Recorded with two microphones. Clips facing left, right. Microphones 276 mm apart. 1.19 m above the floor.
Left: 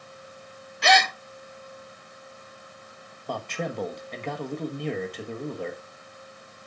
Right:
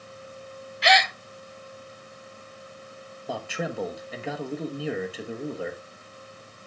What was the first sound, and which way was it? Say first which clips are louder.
A gasp: left 1 dB; 55° left (ahead or behind).